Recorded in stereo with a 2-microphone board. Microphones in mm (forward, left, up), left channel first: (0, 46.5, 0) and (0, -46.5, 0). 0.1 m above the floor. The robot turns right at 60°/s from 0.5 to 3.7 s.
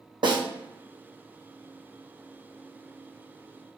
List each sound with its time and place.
0.2 s a snare drum: 60° right (ahead or behind), 0.9 m